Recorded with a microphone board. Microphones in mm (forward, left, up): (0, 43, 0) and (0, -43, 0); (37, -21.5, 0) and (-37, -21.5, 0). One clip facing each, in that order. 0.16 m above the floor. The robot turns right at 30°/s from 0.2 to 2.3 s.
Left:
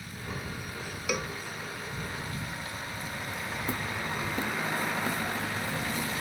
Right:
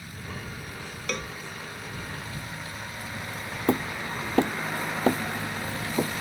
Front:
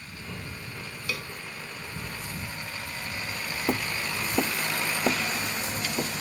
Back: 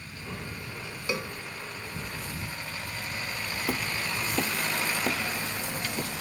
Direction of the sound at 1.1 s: 160° left.